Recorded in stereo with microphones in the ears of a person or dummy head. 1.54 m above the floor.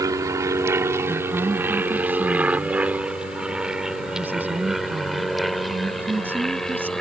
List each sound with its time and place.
0.0 s an aircraft: 15° right (ahead or behind); by 7.0 s 5° left (ahead or behind)
1.1 s a woman speaking: 10° right (ahead or behind)